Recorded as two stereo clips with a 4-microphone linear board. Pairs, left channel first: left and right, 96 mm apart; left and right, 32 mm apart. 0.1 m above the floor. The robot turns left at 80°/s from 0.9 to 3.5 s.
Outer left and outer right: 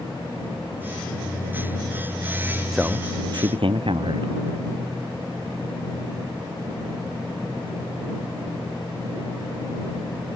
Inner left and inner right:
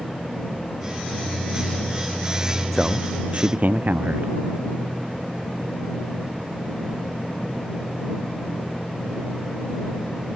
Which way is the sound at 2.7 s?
5° right.